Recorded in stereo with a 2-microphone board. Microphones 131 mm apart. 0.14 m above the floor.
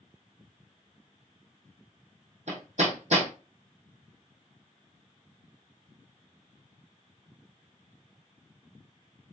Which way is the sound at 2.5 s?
60° right (ahead or behind).